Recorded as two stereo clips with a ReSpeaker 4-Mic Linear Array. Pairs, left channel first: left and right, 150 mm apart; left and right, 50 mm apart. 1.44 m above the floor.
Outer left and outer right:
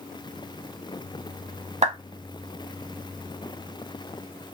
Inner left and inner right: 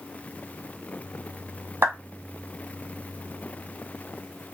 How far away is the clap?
About 1.1 m.